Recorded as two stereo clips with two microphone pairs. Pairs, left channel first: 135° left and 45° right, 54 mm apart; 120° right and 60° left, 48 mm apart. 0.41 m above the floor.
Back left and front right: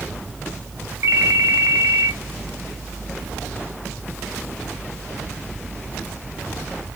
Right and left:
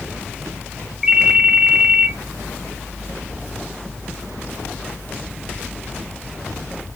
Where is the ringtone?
20° right, 1.8 m.